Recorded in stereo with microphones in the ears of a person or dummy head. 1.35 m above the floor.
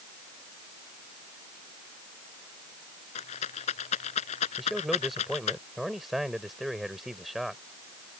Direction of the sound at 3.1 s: 35° left (ahead or behind).